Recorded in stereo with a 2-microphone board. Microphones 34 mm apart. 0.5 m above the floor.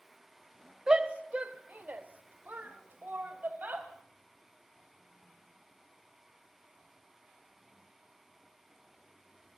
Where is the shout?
25° right (ahead or behind), 1.2 m; by 3.9 s 65° right (ahead or behind), 3 m.